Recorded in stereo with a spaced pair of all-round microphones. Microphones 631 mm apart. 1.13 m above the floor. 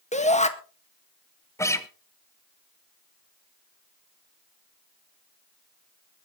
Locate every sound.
0.1 s a shout: 10° left (ahead or behind), 1.7 m
1.6 s a guitar: 5° left (ahead or behind), 1.0 m